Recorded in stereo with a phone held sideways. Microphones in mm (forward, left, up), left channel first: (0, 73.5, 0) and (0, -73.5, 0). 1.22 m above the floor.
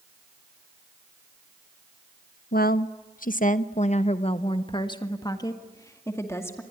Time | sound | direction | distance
2.5 | a woman speaking | 85° left | 0.9 m